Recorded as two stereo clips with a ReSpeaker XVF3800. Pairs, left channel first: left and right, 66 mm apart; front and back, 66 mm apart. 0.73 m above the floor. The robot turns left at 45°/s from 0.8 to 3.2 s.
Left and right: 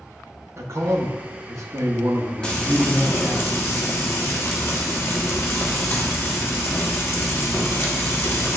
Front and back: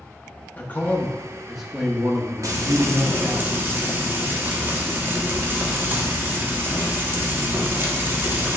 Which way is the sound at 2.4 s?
165° left.